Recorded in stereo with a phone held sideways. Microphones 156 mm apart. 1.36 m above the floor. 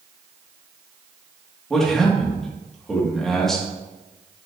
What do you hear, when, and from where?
1.7 s a man speaking: centre (ahead or behind), 2.5 m